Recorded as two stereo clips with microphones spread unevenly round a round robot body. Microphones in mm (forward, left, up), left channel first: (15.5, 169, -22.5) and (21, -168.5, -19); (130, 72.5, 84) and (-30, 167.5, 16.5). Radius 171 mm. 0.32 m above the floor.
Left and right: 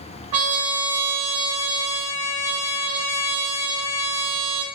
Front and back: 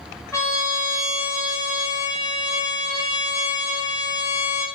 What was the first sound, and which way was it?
A trumpet, 125° right.